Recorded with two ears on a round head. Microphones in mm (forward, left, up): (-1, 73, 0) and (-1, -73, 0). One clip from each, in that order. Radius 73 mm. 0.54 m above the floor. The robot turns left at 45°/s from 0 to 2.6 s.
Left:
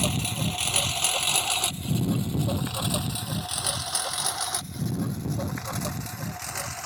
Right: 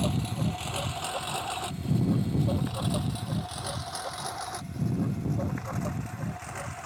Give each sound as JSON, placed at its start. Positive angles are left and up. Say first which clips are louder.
{"t": 0.0, "sound": "a lawn mower", "louder": "left 4 dB", "side_deg": 55}